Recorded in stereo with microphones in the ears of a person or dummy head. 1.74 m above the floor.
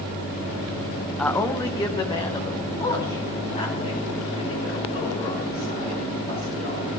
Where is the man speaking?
5° left (ahead or behind), 0.9 m; by 6.9 s 35° left (ahead or behind), 8 m.